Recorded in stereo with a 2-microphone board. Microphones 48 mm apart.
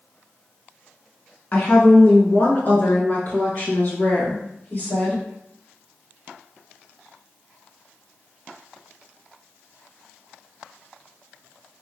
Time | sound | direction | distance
1.5 | a woman speaking | 35° left (ahead or behind) | 1.2 m